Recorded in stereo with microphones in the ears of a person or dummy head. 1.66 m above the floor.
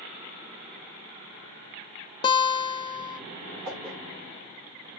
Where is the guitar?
25° left (ahead or behind), 0.8 m.